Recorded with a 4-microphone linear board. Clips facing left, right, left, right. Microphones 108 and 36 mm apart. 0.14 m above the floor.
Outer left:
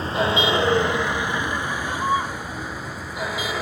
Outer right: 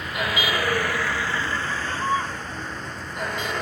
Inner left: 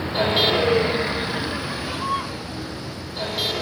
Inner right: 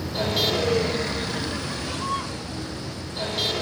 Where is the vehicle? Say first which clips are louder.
Outer left 5 dB, inner left 5 dB; 35° left (ahead or behind); by 3.6 s 5° left (ahead or behind).